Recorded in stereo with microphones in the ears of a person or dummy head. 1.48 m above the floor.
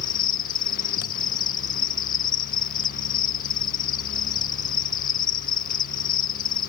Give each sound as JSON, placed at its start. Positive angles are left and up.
{"t": 0.0, "sound": "an insect", "side_deg": 30, "distance_m": 1.0}